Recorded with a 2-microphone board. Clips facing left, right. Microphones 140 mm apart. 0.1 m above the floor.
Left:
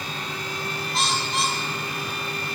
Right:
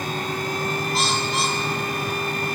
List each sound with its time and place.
0.9 s a bird: centre (ahead or behind), 4 m